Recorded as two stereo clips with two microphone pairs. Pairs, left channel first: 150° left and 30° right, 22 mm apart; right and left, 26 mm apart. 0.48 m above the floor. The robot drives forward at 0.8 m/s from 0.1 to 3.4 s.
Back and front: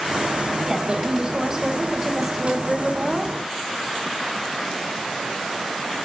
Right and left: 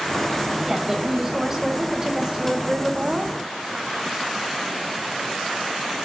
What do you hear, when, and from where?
0.7 s a woman speaking: 25° left, 3 m; by 3.3 s 70° left, 1.6 m